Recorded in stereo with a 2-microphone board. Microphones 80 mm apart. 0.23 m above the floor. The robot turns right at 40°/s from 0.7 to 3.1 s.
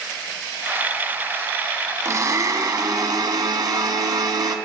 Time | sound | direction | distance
2.0 | a blender | 130° right | 0.5 m